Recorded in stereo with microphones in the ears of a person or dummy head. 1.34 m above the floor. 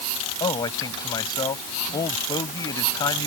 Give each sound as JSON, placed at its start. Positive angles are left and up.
{"t": 0.4, "sound": "a man speaking", "side_deg": 20}